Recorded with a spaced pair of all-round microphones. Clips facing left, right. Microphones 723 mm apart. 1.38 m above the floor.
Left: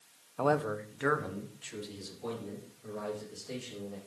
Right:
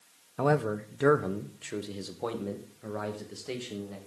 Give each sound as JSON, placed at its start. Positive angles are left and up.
{"t": 0.4, "sound": "a man speaking", "side_deg": -50, "distance_m": 0.8}